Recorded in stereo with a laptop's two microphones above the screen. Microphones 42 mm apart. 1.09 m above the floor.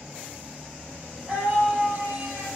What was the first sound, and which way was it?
A scream, 15° right (ahead or behind).